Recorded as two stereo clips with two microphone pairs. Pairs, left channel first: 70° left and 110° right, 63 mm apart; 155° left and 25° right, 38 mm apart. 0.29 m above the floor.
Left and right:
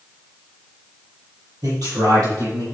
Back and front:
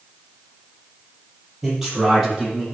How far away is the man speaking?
About 7 m.